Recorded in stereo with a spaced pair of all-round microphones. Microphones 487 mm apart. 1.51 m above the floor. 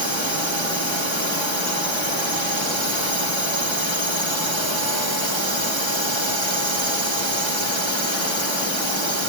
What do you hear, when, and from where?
0.0 s a drone: 65° right (ahead or behind)